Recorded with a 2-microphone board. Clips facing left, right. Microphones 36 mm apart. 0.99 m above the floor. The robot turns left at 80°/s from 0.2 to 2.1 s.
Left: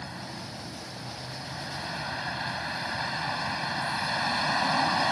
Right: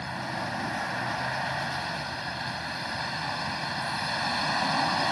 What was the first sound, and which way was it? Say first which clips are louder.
A vehicle: right 7 dB; 30° right.